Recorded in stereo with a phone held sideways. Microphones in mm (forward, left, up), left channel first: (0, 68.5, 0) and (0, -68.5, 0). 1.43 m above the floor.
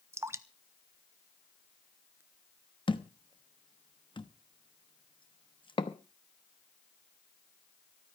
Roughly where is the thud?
Left.